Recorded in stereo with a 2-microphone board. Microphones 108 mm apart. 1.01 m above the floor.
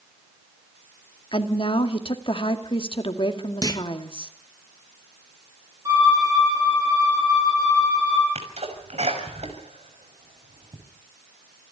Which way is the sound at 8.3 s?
75° right (ahead or behind).